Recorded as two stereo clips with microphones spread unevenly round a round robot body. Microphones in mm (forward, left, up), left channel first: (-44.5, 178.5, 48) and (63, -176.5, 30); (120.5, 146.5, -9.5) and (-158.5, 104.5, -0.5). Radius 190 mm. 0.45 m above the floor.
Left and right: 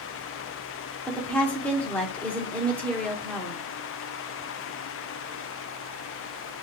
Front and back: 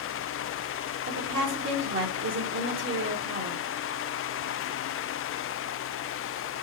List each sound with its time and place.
1.1 s a woman speaking: 165° right, 1.2 m